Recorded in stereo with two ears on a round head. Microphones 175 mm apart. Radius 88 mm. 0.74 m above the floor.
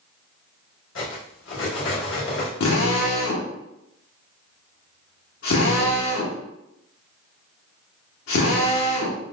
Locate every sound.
0.9 s cutlery clinking: 65° left (ahead or behind), 0.9 m
2.6 s a drill: 80° left, 1.0 m